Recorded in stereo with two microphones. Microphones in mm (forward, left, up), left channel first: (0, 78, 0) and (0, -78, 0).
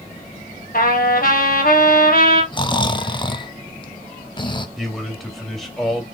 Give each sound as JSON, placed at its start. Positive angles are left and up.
{"t": 0.7, "sound": "a trumpet", "side_deg": 70, "distance_m": 2.5}
{"t": 2.5, "sound": "snoring", "side_deg": 30, "distance_m": 0.7}
{"t": 4.8, "sound": "a man speaking", "side_deg": 0, "distance_m": 3.0}